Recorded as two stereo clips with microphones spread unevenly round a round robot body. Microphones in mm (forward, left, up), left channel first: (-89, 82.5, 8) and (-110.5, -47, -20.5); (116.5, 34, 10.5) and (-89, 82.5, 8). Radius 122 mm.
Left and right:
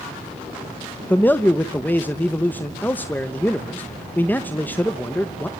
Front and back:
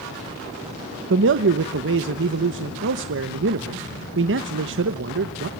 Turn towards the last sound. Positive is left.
turn(degrees=165)